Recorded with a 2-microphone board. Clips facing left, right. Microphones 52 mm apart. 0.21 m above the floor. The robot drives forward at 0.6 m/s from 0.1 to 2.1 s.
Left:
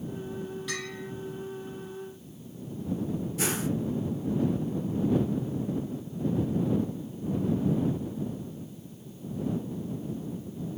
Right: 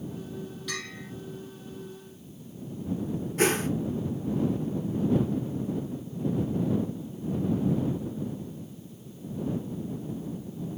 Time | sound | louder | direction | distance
0.7 | a bell | left 2 dB | 10° left (ahead or behind) | 5.5 m
3.4 | a whoosh | right 8 dB | 50° right (ahead or behind) | 0.8 m